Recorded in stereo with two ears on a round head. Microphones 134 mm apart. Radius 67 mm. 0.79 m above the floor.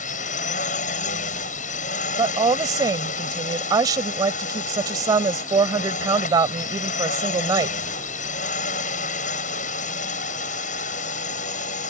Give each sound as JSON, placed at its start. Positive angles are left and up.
{"t": 0.0, "sound": "a drone", "side_deg": 55}
{"t": 2.2, "sound": "a woman speaking", "side_deg": -25}